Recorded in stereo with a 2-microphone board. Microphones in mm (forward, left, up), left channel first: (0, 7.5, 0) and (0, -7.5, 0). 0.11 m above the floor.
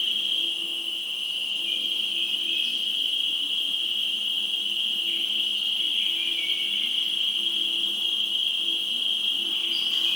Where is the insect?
15° right (ahead or behind), 4 m.